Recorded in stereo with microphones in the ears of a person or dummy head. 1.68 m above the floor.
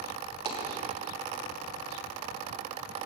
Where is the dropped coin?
30° right (ahead or behind), 3 m.